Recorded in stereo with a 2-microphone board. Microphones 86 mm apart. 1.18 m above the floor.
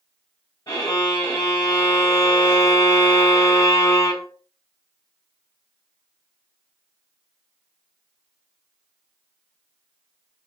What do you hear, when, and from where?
0.7 s a violin: 55° left (ahead or behind), 3.5 m